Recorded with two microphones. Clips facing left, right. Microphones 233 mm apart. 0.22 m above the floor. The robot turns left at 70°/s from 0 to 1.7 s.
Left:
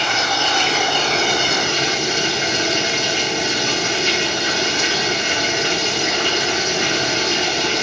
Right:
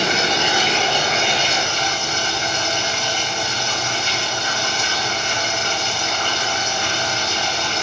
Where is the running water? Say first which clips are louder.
Right 2 dB; 130° right, 1.3 m; by 7.8 s 110° left, 1.3 m.